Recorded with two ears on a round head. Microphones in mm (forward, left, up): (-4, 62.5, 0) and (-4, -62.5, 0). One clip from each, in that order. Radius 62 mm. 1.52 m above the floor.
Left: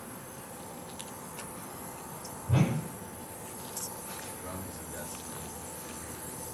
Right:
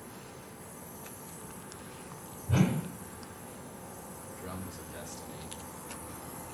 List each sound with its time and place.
2.5 s a whoosh: 35° right (ahead or behind), 2.5 m
4.2 s a man speaking: 30° right (ahead or behind), 3.5 m